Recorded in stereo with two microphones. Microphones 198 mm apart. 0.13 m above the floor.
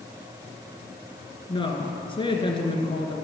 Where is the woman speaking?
25° left (ahead or behind), 1.7 m.